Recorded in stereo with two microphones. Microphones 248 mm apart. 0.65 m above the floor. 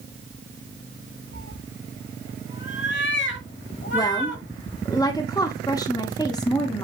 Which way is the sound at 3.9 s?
15° left (ahead or behind).